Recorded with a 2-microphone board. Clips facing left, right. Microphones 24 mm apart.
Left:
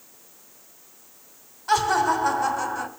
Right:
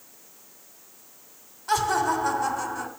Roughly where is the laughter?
Centre.